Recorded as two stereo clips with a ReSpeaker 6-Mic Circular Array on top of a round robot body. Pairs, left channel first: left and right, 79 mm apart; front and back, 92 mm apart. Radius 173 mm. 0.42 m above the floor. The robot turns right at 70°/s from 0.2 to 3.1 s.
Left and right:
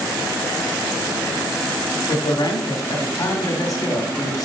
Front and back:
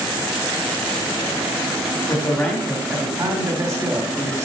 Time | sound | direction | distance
2.1 | a man speaking | 55° left | 2.5 m